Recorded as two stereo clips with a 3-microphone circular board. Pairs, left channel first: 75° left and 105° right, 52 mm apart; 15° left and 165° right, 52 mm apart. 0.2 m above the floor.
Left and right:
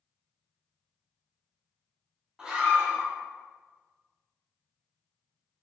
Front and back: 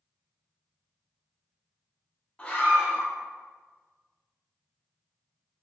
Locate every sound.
2.4 s a scream: 45° right, 1.8 m